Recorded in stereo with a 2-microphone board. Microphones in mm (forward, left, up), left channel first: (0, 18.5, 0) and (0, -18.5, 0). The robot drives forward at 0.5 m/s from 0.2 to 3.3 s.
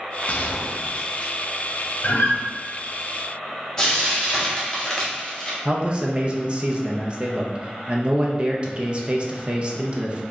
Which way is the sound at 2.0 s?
55° left (ahead or behind).